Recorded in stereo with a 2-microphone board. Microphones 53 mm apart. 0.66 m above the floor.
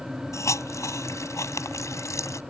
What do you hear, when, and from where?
0.3 s a hiss: 70° left (ahead or behind)